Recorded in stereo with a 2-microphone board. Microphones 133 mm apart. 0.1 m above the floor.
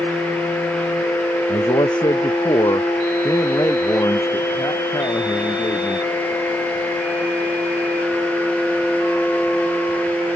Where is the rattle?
No rattle in this recording.